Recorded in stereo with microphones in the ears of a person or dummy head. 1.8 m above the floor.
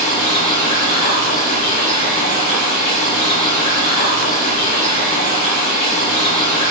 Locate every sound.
0.0 s running water: 40° left (ahead or behind), 2 m